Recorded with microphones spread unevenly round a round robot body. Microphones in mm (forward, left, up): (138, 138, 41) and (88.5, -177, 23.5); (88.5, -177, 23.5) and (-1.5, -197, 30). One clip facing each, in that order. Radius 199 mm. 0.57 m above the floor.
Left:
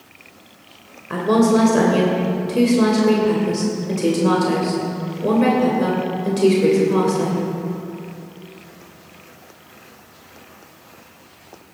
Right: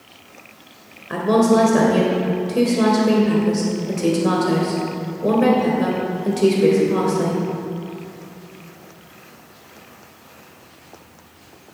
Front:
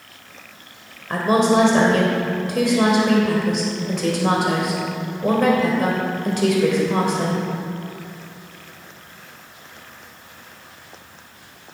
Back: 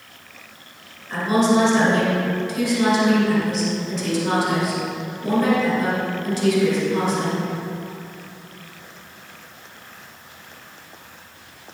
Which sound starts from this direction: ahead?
A woman speaking, at 1.1 s.